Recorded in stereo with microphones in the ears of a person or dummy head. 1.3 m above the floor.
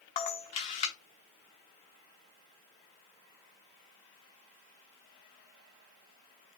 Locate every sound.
0.2 s a camera shutter: 25° left (ahead or behind), 0.9 m